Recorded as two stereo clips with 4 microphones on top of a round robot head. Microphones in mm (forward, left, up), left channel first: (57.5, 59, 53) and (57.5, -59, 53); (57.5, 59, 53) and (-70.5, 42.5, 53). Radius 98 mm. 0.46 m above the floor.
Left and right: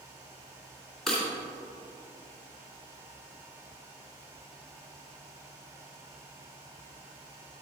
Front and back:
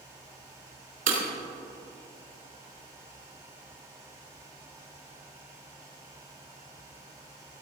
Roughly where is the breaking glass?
Behind.